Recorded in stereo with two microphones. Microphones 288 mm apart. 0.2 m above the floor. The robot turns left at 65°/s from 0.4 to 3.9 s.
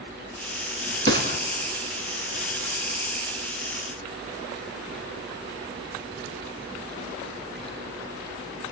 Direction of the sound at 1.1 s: 45° right (ahead or behind).